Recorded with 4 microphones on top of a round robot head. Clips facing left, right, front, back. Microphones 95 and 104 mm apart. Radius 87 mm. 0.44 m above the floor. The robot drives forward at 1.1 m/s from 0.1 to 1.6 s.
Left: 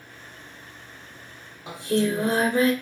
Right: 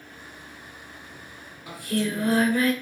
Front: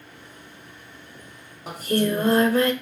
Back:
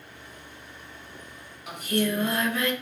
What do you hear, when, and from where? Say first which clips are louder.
1.7 s singing: left 4 dB, front 4 dB; 35° left, 0.9 m